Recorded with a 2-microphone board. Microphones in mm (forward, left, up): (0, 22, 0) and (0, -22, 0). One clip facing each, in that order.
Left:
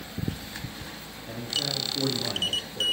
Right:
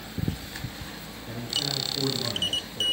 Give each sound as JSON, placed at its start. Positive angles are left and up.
{"t": 1.3, "sound": "a man speaking", "side_deg": 10, "distance_m": 2.5}